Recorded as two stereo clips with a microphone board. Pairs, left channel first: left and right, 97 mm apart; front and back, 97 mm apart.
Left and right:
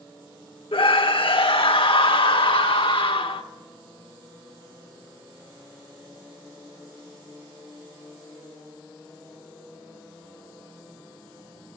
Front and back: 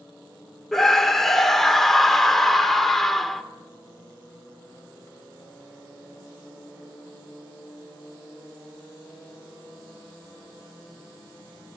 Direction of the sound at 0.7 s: 85° left.